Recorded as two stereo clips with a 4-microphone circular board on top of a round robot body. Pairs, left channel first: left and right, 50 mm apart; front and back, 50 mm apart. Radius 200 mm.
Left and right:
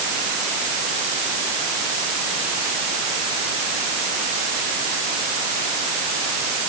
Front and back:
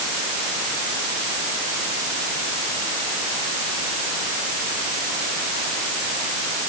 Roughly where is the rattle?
I don't hear a rattle.